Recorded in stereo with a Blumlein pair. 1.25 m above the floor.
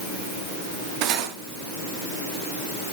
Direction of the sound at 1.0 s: 40° right.